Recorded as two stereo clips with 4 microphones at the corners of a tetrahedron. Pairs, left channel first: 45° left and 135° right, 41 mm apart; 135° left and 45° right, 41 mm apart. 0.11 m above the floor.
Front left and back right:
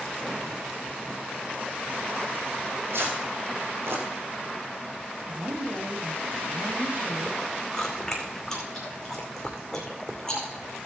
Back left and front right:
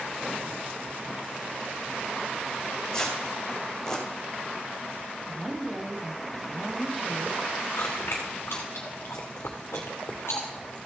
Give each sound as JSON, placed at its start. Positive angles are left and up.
{"t": 2.9, "sound": "tearing paper", "azimuth_deg": -150, "distance_m": 3.0}
{"t": 5.3, "sound": "a woman speaking", "azimuth_deg": -135, "distance_m": 3.0}
{"t": 7.7, "sound": "chewing", "azimuth_deg": 120, "distance_m": 2.5}